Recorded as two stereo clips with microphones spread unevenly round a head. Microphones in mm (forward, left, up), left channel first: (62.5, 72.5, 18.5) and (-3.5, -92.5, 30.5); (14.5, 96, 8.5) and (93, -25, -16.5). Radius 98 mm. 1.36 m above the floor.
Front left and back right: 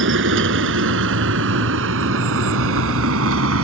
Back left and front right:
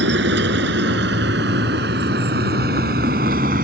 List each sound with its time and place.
0.0 s a vehicle: 95° right; by 3.6 s 110° right